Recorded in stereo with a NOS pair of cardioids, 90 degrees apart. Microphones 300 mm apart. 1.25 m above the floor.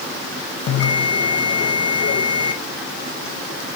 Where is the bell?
55° left, 1.2 m.